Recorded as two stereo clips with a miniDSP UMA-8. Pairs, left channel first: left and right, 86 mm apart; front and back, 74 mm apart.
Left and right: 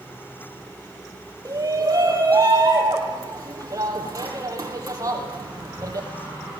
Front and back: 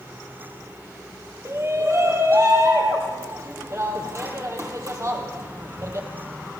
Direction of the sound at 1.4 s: 135° right.